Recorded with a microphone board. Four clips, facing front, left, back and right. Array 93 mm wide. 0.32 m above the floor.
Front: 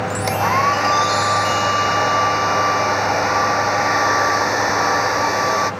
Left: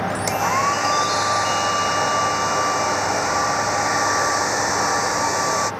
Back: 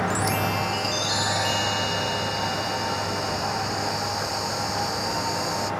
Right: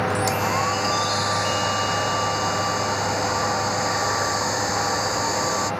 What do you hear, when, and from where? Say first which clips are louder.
0.3 s a hair dryer: left 3 dB, front 9 dB; 15° left